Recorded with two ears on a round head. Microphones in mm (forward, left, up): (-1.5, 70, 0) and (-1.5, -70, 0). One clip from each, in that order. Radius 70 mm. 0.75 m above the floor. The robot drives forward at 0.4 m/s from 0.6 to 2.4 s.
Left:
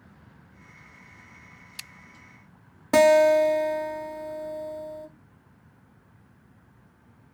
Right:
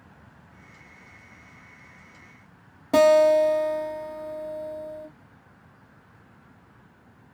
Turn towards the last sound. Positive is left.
turn(degrees=25)  # may be behind; listen again after turning